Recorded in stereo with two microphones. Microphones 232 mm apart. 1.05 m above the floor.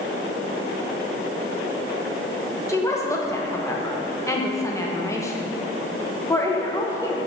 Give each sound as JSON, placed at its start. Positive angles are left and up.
{"t": 2.7, "sound": "a woman speaking", "side_deg": 15, "distance_m": 1.0}